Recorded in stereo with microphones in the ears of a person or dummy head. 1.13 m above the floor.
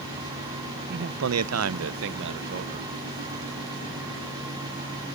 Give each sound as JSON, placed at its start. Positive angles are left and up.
{"t": 0.9, "sound": "a man speaking", "side_deg": -55, "distance_m": 0.6}